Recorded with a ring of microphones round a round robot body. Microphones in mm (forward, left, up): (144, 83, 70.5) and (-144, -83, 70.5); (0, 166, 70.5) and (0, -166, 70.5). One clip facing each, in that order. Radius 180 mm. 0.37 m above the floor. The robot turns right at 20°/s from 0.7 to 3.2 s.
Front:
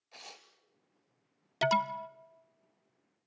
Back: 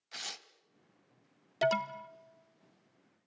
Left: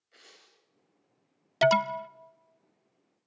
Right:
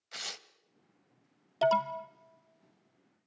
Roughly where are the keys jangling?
No keys jangling in this recording.